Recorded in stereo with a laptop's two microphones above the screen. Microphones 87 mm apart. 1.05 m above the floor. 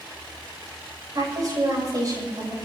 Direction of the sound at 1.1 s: 40° right (ahead or behind).